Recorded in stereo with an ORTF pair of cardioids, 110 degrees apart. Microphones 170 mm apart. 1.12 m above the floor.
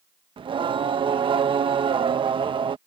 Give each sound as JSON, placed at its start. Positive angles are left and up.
{"t": 0.4, "sound": "singing", "azimuth_deg": -30}